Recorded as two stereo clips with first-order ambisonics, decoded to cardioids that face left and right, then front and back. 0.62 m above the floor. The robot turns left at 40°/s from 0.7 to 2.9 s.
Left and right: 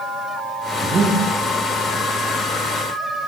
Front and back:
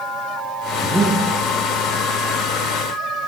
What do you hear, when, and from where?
0.8 s breathing: 100° right, 0.7 m; by 1.2 s 115° right, 0.7 m